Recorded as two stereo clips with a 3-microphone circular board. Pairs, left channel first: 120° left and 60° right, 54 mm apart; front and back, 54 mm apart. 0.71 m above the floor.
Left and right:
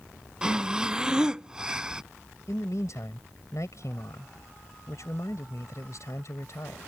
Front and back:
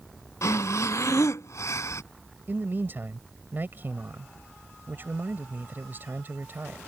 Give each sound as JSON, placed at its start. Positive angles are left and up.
{"t": 0.4, "sound": "breathing", "azimuth_deg": 15}
{"t": 2.5, "sound": "a man speaking", "azimuth_deg": 130}